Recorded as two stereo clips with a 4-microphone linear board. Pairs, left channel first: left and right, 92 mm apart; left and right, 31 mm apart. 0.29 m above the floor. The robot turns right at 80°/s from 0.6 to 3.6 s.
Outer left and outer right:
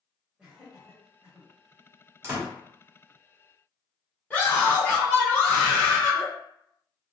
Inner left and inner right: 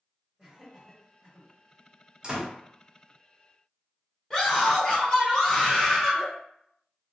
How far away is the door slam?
About 1.1 m.